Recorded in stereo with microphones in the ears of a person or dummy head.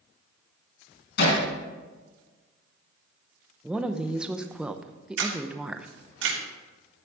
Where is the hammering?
70° left (ahead or behind), 4 m.